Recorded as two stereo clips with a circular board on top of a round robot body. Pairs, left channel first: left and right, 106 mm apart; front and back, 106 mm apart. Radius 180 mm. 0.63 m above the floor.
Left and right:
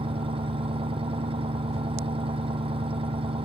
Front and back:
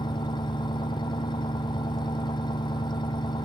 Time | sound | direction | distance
0.0 | an engine running | 50° right | ?